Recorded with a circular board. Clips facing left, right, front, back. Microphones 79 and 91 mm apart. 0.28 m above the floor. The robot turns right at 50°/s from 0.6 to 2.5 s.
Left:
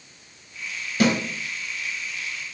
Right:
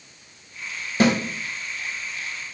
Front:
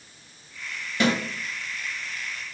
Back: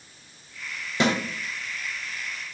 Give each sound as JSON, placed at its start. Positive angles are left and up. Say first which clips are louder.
{"t": 1.0, "sound": "a snare drum", "louder": "right 2 dB, even", "azimuth_deg": -125, "distance_m": 0.6}